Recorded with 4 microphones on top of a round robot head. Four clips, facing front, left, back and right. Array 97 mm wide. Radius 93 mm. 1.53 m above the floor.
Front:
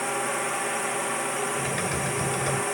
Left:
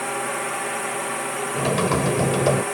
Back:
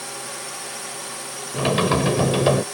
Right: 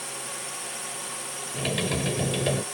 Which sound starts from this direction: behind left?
Typing on a keyboard, at 1.5 s.